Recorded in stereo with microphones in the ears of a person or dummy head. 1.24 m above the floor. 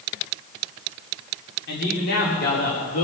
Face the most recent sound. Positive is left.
turn(degrees=45)  # may be behind; listen again after turning